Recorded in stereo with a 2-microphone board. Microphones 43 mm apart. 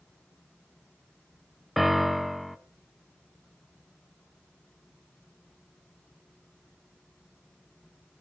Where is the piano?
Centre (ahead or behind), 0.8 m.